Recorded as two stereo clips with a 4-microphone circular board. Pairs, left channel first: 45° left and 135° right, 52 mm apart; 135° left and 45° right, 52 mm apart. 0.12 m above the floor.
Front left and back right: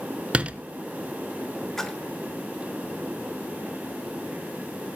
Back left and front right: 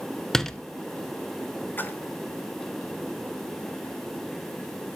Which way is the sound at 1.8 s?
125° left.